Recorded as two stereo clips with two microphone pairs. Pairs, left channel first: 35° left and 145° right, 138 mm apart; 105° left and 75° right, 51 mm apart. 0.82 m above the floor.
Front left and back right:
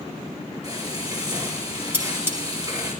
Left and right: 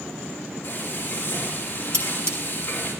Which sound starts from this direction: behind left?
Frying, at 0.6 s.